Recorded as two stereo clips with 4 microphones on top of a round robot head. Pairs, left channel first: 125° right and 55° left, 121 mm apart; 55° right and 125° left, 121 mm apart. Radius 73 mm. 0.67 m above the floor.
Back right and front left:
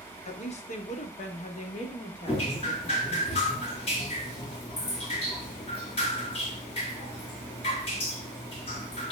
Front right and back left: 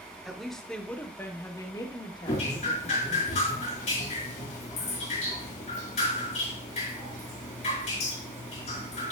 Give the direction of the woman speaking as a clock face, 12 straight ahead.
5 o'clock.